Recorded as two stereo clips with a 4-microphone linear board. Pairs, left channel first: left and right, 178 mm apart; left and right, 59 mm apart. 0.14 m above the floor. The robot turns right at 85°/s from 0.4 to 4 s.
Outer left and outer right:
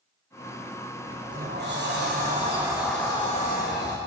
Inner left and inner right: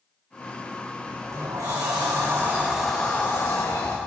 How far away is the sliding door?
About 6 m.